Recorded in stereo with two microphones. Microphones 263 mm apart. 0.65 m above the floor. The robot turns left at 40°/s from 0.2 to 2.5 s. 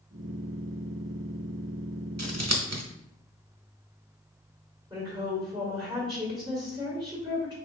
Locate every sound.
2.2 s scissors: 80° right, 0.7 m; by 2.8 s 70° right (ahead or behind), 0.7 m
4.9 s a woman speaking: 15° right (ahead or behind), 1.6 m